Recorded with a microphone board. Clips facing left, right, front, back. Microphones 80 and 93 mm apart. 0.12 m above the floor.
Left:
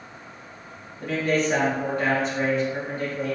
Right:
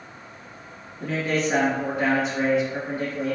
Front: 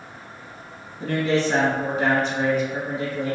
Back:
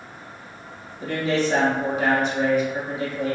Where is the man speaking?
10° right, 1.6 m.